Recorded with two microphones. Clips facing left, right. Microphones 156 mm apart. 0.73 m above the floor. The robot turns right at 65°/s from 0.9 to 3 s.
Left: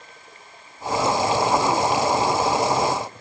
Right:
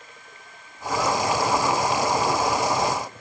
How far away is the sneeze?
I don't hear a sneeze.